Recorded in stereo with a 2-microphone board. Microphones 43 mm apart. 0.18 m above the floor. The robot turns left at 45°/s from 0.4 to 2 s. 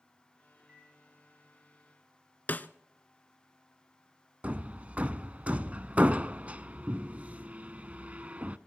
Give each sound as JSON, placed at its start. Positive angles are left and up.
{"t": 0.6, "sound": "a microwave", "side_deg": -40, "distance_m": 5.5}
{"t": 2.5, "sound": "a snare drum", "side_deg": 40, "distance_m": 0.6}
{"t": 4.4, "sound": "hammering", "side_deg": -30, "distance_m": 0.6}